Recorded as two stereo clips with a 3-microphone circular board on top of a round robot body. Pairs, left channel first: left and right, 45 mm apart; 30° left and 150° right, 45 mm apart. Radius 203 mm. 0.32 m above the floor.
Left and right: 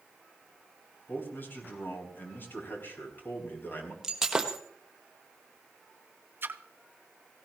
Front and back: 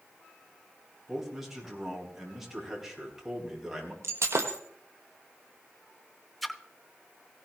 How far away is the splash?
About 1.0 m.